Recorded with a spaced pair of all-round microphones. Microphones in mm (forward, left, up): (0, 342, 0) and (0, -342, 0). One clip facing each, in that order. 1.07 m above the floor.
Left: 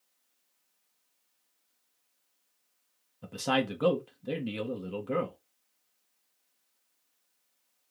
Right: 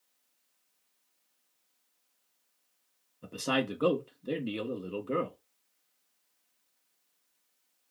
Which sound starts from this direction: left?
A man speaking, at 3.2 s.